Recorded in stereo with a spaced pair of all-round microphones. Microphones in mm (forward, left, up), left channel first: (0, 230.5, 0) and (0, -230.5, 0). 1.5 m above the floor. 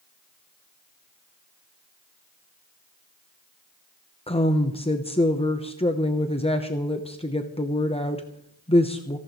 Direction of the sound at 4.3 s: 15° left (ahead or behind).